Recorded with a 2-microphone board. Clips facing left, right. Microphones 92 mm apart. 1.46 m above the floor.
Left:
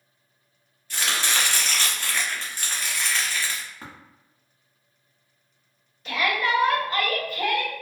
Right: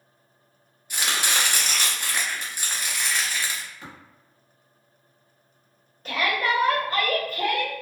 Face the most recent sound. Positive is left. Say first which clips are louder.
# even
turn(degrees=-40)  # may be behind; listen again after turning